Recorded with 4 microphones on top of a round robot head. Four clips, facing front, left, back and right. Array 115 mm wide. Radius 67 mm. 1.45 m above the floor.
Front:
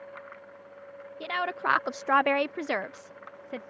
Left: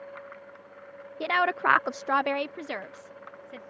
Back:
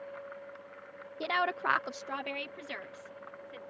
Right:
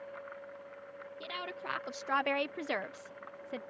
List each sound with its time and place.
1.2 s a woman speaking: 105° left; by 3.6 s 15° right